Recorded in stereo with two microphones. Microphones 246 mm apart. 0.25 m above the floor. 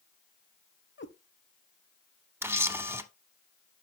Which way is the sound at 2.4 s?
10° right (ahead or behind).